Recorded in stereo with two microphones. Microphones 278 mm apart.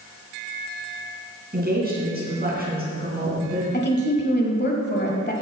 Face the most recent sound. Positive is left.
turn(degrees=35)  # may be behind; listen again after turning